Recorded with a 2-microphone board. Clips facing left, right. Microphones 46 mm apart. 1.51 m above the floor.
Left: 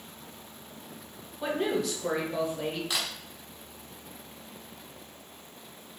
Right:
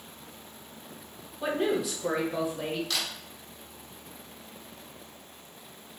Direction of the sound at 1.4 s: 5° right (ahead or behind).